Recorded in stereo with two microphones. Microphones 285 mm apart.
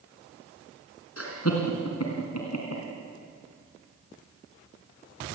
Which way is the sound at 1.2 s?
55° left (ahead or behind).